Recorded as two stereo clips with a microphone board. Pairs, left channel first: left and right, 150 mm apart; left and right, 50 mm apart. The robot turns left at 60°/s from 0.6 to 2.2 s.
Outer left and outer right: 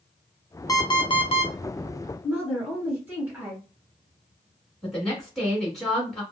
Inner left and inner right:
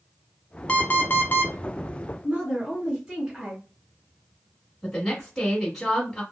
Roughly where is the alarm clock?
Behind left.